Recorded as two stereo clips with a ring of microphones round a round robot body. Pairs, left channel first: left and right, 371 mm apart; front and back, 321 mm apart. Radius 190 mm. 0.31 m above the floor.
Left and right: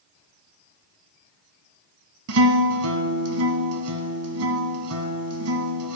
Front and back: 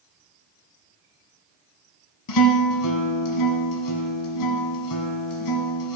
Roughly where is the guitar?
Ahead right.